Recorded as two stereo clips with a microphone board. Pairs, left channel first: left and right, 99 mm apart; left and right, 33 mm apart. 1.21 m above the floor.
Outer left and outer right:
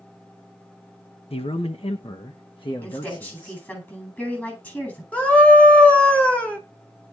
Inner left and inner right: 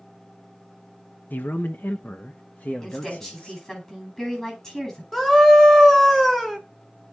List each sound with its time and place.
1.3 s a man speaking: 80° left, 0.9 m; by 3.6 s 40° left (ahead or behind), 1.6 m
2.8 s a woman speaking: 20° left (ahead or behind), 10 m
5.1 s a scream: 15° left (ahead or behind), 3.5 m